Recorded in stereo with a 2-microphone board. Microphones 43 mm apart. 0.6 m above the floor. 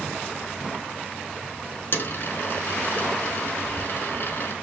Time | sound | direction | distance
1.9 | a dropped coin | 50° left (ahead or behind) | 0.9 m